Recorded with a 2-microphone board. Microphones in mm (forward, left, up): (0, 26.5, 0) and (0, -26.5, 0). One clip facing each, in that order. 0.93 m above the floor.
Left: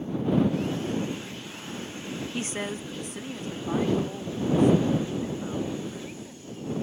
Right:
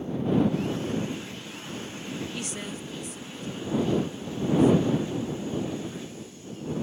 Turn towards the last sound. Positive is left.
turn(degrees=60)  # may be behind; listen again after turning